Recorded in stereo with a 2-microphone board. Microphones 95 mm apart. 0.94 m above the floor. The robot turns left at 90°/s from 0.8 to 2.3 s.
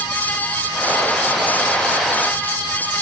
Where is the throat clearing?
No throat clearing in this recording.